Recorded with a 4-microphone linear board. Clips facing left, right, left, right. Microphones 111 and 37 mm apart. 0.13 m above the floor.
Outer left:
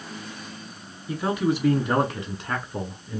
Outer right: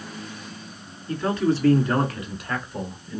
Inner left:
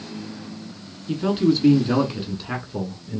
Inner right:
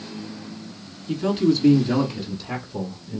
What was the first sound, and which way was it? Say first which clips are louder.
A man speaking: outer right 1 dB, even; 10° left (ahead or behind).